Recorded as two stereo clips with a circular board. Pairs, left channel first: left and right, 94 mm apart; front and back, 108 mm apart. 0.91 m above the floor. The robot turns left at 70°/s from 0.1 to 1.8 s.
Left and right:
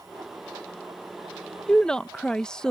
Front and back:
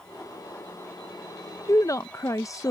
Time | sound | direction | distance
1.7 | a woman speaking | 25° left | ?